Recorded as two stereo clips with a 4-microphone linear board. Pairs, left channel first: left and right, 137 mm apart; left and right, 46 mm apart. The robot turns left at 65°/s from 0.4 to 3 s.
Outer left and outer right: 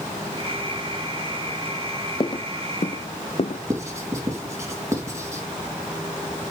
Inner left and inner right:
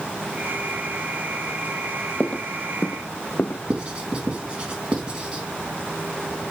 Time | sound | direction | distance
2.2 | footsteps | 35° left (ahead or behind) | 0.5 m
3.7 | writing | 20° right (ahead or behind) | 3 m